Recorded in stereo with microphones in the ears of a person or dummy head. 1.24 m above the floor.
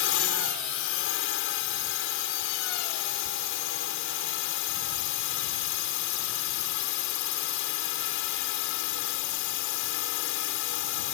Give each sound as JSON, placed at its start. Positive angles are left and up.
{"t": 0.0, "sound": "a drone", "side_deg": 65}